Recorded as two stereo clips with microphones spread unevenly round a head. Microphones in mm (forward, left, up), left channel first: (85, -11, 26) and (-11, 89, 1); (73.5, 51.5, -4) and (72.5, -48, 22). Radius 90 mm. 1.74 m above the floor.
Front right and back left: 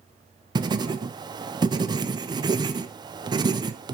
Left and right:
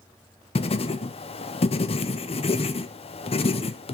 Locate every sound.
0.6 s writing: 75° left, 0.7 m